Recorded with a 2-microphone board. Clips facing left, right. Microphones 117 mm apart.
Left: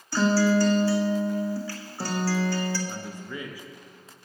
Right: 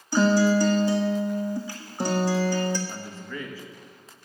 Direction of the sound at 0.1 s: 20° right (ahead or behind).